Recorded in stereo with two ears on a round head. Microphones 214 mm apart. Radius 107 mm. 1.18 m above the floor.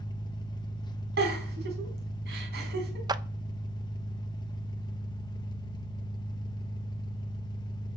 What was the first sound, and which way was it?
An engine running, 20° left (ahead or behind).